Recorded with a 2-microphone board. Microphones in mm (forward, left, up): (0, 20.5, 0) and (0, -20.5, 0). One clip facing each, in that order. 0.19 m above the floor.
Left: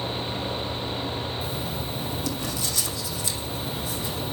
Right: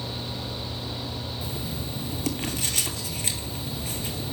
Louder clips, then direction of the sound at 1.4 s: Left 3 dB; 50° right (ahead or behind).